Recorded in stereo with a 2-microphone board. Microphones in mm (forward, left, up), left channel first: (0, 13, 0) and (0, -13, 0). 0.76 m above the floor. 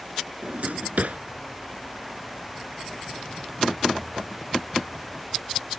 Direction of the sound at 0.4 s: 70° right (ahead or behind).